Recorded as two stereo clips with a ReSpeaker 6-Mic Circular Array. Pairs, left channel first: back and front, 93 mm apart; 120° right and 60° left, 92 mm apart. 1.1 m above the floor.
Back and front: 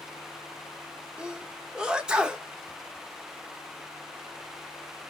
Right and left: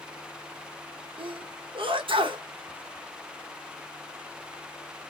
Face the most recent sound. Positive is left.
turn(degrees=80)